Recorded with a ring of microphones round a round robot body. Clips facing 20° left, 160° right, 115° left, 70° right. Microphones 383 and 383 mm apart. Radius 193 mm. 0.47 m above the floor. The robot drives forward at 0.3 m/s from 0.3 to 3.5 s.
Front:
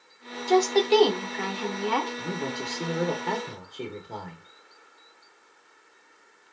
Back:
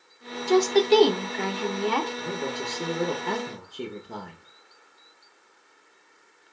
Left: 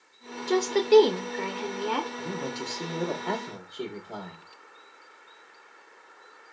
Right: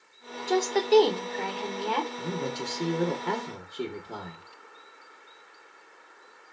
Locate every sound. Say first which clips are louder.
0.5 s a woman speaking: back 2 dB, left 2 dB; straight behind, 0.7 m
2.2 s a man speaking: back 1 dB, right 1 dB; 45° right, 0.7 m; by 4.5 s 120° right, 0.7 m